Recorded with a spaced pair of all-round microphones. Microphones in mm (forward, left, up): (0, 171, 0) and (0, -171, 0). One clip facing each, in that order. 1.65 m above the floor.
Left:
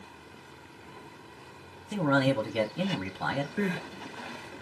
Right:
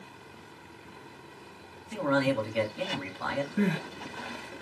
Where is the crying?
50° right (ahead or behind), 2 m.